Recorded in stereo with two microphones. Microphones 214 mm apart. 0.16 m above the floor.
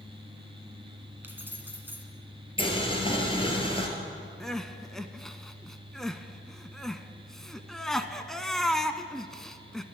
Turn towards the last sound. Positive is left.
turn(degrees=0)  # may be behind; listen again after turning